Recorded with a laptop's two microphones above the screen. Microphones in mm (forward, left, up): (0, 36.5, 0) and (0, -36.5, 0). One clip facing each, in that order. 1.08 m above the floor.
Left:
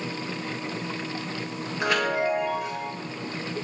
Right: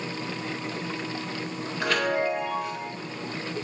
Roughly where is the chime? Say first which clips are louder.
Left 1 dB; centre.